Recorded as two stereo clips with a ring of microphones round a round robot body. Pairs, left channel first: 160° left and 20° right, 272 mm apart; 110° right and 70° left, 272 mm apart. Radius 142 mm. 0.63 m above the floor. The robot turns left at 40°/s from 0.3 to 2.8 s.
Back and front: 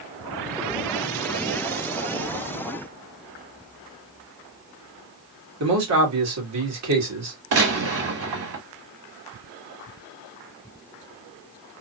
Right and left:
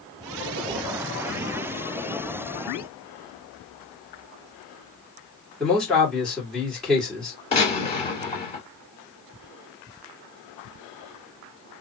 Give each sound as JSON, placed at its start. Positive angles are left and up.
{"t": 5.6, "sound": "a man speaking", "azimuth_deg": -25, "distance_m": 2.0}
{"t": 7.5, "sound": "a gunshot", "azimuth_deg": -45, "distance_m": 2.5}